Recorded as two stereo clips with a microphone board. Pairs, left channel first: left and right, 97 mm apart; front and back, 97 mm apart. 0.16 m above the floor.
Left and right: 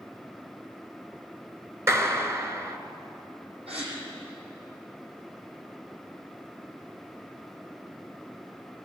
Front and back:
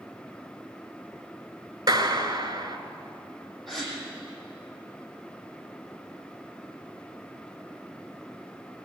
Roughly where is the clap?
Behind right.